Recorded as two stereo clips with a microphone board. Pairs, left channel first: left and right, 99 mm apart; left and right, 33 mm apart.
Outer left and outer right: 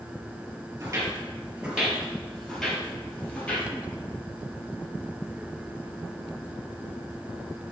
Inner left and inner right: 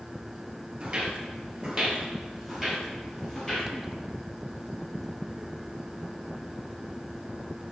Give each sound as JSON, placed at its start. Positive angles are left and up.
{"t": 0.8, "sound": "footsteps", "side_deg": -30, "distance_m": 1.9}